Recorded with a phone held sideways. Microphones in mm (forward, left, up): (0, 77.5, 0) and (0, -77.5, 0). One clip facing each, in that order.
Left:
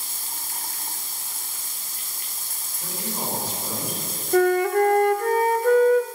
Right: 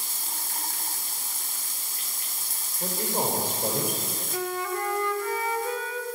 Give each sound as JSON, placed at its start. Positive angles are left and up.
{"t": 2.8, "sound": "a man speaking", "side_deg": -50, "distance_m": 5.5}
{"t": 4.3, "sound": "a flute", "side_deg": 55, "distance_m": 0.9}